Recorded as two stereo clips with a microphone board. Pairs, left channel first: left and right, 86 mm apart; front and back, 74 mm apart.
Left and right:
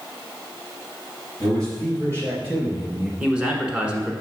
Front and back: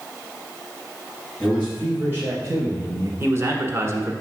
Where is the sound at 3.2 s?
160° right, 1.3 m.